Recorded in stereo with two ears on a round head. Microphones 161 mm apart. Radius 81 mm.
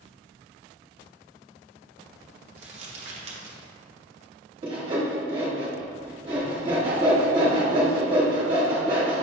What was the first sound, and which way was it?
Crumpling, 40° right (ahead or behind).